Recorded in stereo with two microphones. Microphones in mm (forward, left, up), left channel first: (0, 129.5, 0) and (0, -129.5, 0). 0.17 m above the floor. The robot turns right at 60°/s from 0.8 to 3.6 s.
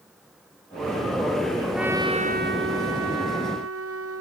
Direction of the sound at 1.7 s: Straight behind.